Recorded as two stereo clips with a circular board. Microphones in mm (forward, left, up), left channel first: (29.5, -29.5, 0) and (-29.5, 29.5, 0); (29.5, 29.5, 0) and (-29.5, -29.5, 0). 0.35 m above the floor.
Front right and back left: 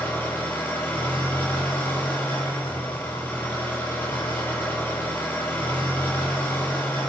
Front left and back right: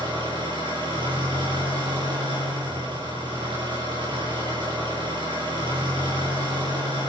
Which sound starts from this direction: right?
An engine running, at 0.0 s.